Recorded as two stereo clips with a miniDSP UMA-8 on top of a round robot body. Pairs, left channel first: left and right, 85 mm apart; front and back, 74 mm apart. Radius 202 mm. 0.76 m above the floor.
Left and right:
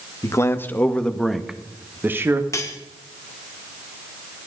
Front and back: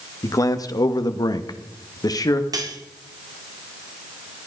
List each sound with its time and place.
0.2 s a man speaking: 40° left, 1.7 m; by 2.4 s 35° right, 2.0 m
2.5 s cutlery clinking: 145° left, 1.9 m